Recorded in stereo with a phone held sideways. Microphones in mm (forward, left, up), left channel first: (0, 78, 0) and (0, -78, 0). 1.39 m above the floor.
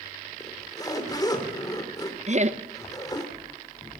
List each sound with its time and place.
0.4 s a zipper: 25° left (ahead or behind), 3 m
2.3 s laughter: 50° right (ahead or behind), 1.0 m